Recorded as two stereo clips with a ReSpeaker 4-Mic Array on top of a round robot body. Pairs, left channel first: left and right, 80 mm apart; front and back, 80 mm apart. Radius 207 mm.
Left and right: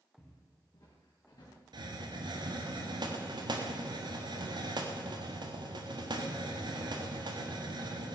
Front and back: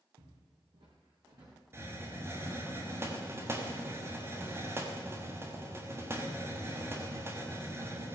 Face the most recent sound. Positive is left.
turn(degrees=-120)